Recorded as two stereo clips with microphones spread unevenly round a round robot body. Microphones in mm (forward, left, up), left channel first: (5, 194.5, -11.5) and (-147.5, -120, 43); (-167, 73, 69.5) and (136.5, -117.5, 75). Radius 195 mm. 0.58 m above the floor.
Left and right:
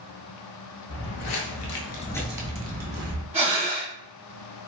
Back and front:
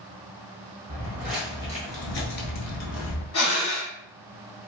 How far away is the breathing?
About 1.7 m.